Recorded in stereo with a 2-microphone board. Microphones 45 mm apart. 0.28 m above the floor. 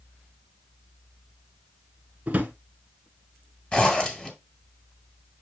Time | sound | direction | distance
2.3 | a drawer | 30° right (ahead or behind) | 1.2 m
3.7 | a zipper | 25° left (ahead or behind) | 2 m